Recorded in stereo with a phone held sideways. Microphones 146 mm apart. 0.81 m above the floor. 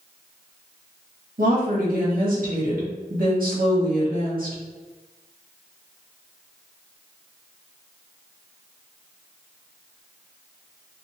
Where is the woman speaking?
75° right (ahead or behind), 1.1 m.